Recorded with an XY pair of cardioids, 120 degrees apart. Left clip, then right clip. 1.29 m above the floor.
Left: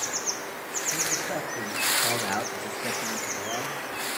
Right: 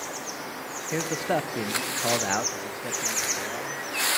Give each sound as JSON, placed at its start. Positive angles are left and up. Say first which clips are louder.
{"t": 0.9, "sound": "a man speaking", "louder": "right 4 dB", "azimuth_deg": -70, "distance_m": 0.9}